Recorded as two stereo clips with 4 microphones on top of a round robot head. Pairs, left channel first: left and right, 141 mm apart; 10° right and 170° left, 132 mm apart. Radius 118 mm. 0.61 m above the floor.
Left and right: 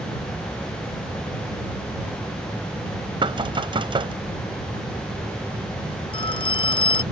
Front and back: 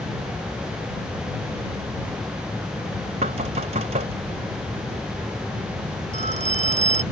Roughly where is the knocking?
Behind right.